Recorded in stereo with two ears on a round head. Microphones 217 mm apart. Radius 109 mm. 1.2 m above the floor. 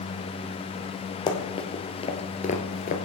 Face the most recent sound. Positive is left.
turn(degrees=35)  # may be behind; listen again after turning